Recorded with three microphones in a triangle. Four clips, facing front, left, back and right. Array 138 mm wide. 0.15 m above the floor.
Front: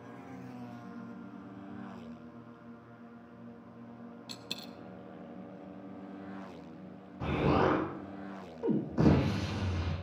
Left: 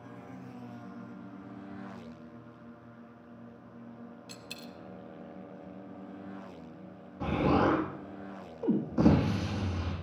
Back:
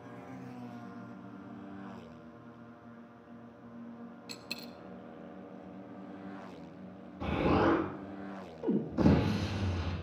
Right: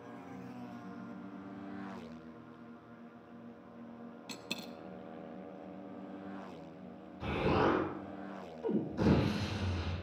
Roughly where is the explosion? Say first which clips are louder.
Left 4 dB, even; ahead left.